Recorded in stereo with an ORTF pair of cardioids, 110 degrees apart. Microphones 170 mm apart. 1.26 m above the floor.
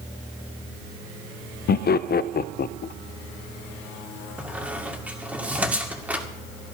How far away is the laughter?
About 0.6 m.